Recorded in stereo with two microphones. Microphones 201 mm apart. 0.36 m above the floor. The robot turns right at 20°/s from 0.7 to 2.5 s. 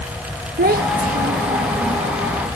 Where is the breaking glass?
No breaking glass in this recording.